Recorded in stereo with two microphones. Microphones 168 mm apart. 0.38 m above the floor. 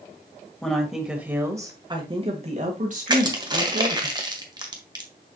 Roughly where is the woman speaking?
Centre.